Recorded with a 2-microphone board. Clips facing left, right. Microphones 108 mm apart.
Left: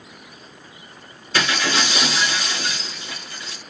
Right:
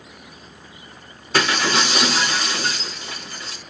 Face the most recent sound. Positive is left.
turn(degrees=-45)  # may be behind; listen again after turning